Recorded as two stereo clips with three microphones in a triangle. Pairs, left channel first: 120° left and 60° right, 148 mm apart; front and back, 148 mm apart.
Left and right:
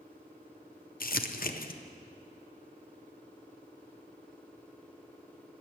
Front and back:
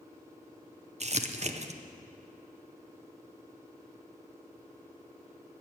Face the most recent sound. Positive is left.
turn(degrees=135)